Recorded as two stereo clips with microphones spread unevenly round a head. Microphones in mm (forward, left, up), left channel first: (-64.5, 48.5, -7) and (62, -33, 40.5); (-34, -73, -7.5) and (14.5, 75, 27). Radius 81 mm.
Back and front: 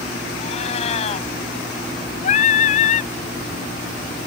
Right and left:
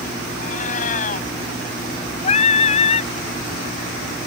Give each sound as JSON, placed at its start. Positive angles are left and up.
{"t": 0.4, "sound": "a cat meowing", "azimuth_deg": -155}
{"t": 2.2, "sound": "singing", "azimuth_deg": -160}